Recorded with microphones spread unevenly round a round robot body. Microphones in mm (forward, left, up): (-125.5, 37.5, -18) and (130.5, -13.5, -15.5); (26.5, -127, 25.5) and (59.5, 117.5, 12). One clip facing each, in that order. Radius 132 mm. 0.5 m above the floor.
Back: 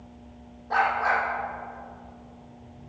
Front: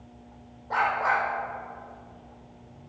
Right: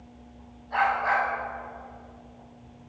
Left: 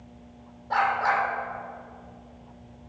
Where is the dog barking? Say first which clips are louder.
Back 2 dB, even; 100° left, 5 m.